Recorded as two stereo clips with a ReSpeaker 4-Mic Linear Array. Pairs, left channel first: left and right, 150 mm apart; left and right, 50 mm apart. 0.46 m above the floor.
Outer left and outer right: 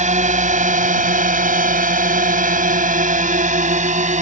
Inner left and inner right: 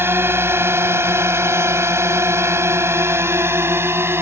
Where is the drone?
55° right (ahead or behind).